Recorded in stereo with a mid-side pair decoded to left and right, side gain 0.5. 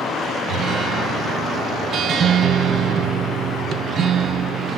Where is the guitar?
55° right, 0.5 m.